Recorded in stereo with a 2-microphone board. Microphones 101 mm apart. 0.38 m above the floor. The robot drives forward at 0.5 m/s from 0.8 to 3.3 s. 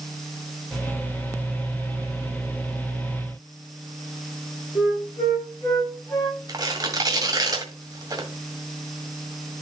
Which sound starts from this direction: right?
Tearing paper, at 6.5 s.